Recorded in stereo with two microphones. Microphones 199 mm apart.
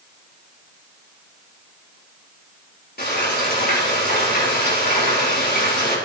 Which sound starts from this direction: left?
Frying, at 3.0 s.